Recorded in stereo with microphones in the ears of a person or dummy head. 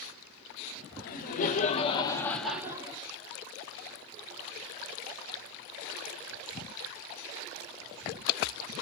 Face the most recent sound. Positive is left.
turn(degrees=-30)  # may be behind; listen again after turning